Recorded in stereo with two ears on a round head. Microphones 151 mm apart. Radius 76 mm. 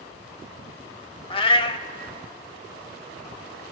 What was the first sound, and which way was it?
A cat meowing, 35° left (ahead or behind).